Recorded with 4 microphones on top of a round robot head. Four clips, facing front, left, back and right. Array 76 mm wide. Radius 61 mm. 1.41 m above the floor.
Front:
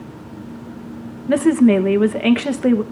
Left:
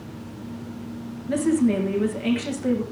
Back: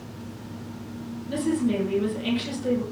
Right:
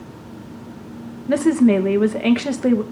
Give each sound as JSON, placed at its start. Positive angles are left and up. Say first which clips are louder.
{"t": 1.3, "sound": "a woman speaking", "louder": "right 6 dB, front 11 dB", "azimuth_deg": -30, "distance_m": 1.7}